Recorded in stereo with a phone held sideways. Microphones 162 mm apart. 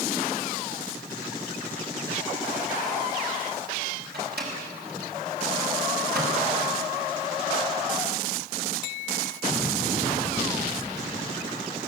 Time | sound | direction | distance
4.1 | a microwave | 85° right | 6 m